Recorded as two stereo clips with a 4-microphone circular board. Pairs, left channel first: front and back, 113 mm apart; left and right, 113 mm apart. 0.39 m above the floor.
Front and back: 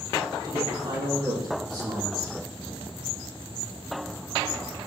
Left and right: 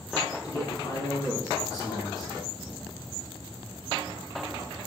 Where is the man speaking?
145° left, 4.5 m.